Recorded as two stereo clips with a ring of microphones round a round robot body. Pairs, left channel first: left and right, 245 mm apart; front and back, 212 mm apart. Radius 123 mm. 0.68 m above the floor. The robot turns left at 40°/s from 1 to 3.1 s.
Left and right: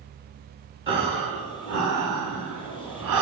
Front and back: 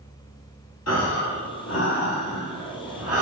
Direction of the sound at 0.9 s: 20° right.